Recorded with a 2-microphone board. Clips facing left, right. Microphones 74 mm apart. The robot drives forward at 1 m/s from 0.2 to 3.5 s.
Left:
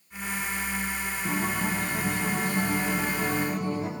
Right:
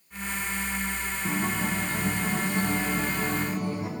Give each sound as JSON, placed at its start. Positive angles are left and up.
{"t": 1.2, "sound": "a guitar", "side_deg": -5, "distance_m": 4.0}